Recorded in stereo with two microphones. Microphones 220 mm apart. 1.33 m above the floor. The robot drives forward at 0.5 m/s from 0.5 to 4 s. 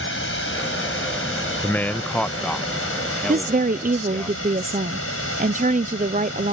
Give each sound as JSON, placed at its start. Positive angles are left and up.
{"t": 0.0, "sound": "running water", "side_deg": 60}
{"t": 1.6, "sound": "a man speaking", "side_deg": 10}
{"t": 3.3, "sound": "a woman speaking", "side_deg": -35}